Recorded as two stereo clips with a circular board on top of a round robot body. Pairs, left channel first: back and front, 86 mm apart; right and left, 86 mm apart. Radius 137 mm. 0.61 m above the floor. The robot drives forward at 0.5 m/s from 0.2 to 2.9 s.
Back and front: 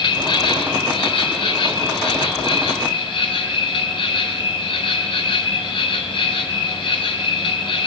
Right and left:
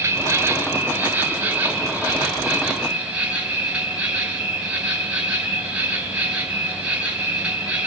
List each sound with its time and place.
0.0 s an insect: 150° left, 1.4 m; by 7.9 s 165° left, 2.5 m